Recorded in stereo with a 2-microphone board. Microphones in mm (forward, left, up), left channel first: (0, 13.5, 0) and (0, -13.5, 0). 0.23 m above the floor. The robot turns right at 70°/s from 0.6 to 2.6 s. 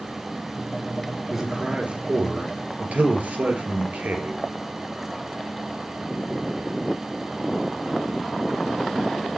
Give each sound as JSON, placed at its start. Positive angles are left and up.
{"t": 1.3, "sound": "a man speaking", "azimuth_deg": -165, "distance_m": 4.5}